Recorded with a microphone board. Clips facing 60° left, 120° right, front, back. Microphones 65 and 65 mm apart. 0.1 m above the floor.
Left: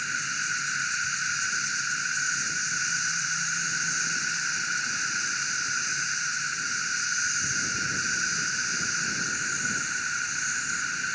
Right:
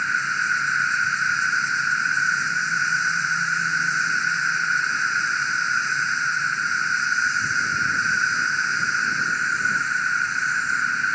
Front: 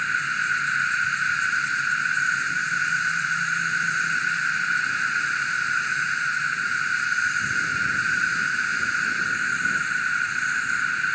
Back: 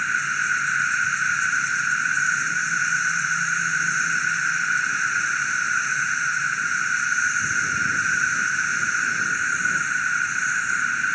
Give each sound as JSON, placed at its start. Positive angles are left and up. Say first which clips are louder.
{"t": 0.0, "sound": "an insect", "louder": "right 8 dB, back 1 dB", "azimuth_deg": -100}